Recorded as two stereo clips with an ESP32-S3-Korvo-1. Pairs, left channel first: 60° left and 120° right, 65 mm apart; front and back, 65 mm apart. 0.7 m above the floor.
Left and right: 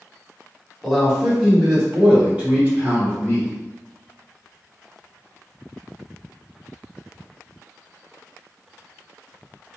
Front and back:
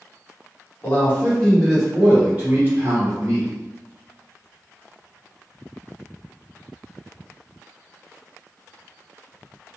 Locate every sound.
0.8 s a man speaking: 25° right, 1.2 m; by 3.5 s 160° right, 1.5 m